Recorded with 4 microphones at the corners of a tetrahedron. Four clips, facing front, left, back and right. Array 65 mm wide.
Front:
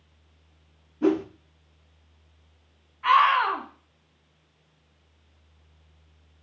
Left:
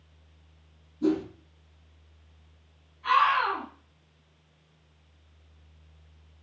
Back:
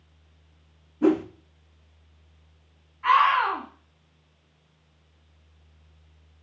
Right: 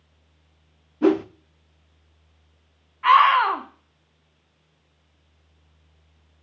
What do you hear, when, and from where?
1.0 s a whoosh: 105° right, 0.5 m
3.0 s a scream: 90° right, 1.5 m